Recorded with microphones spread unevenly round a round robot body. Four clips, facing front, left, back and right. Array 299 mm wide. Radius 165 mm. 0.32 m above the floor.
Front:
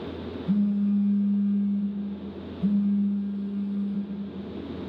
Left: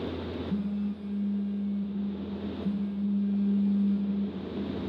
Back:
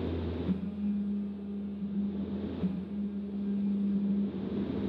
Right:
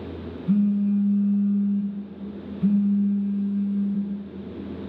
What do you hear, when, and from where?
0.5 s a phone buzzing: 65° right, 2.5 m